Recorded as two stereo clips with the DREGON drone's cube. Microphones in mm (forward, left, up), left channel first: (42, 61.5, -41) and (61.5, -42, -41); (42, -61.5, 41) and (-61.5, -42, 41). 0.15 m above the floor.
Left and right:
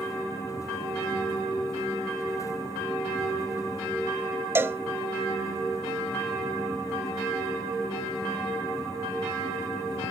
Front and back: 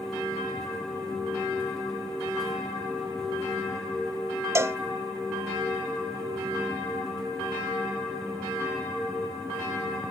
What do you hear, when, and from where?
4.5 s a cowbell: 135° right, 0.6 m